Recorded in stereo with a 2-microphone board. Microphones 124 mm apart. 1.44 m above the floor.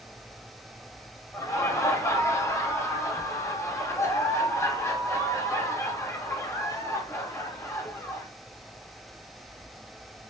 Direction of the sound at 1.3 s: 20° left (ahead or behind).